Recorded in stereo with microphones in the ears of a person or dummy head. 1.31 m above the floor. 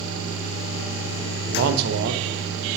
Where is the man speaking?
60° right (ahead or behind), 1.0 m.